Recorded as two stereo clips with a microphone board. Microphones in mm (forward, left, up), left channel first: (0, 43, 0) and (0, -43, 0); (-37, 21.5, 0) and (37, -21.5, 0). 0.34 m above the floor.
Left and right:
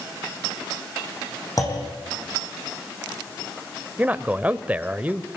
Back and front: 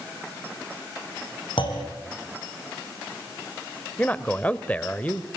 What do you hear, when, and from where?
1.6 s a clunk: 140° left, 6 m
4.0 s a man speaking: 150° right, 1.0 m